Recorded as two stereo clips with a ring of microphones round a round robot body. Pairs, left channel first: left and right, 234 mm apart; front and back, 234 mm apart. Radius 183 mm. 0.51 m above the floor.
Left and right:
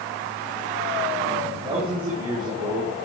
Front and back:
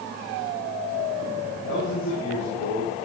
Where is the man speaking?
25° right, 6 m; by 2.9 s 15° right, 6.5 m.